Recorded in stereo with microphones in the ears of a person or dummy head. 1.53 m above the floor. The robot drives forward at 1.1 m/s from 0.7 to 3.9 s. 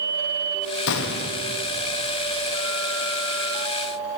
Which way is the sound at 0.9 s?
65° left (ahead or behind).